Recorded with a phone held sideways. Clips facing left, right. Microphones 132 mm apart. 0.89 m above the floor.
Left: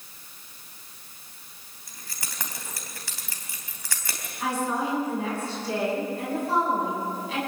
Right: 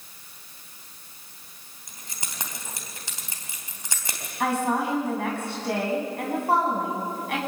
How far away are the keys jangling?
About 3.5 m.